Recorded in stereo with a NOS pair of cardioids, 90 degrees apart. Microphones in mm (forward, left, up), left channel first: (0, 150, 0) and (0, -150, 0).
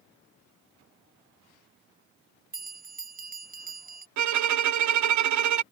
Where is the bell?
25° right.